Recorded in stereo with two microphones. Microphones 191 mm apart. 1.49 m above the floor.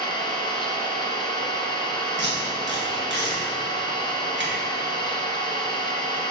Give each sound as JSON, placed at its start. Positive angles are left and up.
{"t": 0.0, "sound": "an engine running", "side_deg": 20, "distance_m": 1.0}
{"t": 2.2, "sound": "tape being pulled", "side_deg": -70, "distance_m": 1.8}